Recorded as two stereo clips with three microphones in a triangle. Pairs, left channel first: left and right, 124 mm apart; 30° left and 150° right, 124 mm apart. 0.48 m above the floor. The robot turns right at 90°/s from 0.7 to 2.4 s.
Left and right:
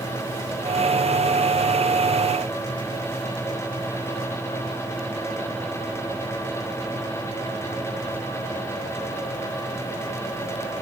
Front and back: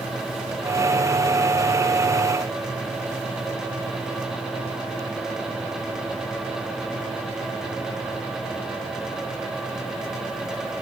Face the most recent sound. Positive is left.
No sound to turn to.